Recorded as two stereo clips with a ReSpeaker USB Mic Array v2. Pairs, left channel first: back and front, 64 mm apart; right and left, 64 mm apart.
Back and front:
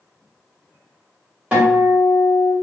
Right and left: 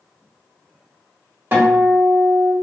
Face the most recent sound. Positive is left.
turn(degrees=60)